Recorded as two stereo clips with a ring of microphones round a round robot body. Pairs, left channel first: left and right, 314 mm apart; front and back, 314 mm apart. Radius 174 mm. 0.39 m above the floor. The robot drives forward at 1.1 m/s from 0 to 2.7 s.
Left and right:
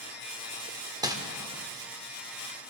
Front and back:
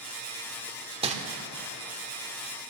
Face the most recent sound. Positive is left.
turn(degrees=-175)